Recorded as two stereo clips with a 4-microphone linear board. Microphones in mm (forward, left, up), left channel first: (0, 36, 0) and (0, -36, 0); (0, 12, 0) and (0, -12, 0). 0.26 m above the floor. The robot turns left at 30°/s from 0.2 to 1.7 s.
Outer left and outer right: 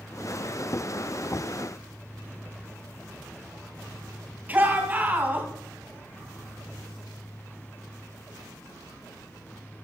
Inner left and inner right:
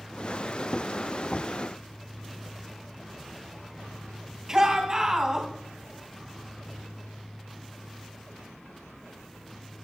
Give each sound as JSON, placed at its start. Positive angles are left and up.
{"t": 4.5, "sound": "a shout", "side_deg": -25, "distance_m": 2.0}